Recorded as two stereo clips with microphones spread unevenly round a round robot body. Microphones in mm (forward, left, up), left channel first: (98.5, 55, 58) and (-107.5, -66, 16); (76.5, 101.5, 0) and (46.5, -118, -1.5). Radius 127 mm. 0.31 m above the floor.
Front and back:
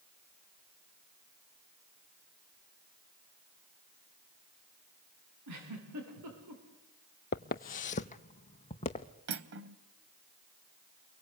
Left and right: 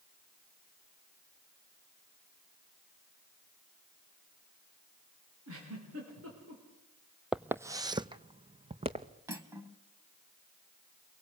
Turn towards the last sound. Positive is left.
turn(degrees=-175)